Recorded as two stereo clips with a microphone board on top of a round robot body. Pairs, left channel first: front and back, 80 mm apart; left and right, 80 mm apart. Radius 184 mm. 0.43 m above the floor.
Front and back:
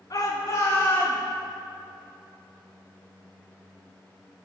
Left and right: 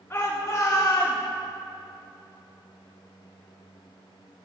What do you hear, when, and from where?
0.1 s a shout: 30° left, 2.5 m; by 1.2 s 60° left, 2.5 m